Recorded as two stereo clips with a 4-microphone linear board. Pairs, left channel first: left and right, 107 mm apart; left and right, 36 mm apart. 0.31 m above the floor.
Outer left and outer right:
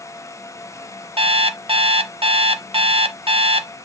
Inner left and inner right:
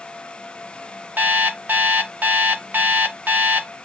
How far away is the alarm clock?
About 0.6 m.